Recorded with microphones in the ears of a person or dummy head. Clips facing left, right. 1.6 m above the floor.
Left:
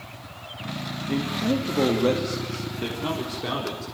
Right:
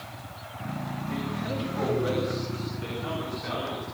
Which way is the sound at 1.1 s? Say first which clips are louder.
Left 9 dB; 50° left (ahead or behind).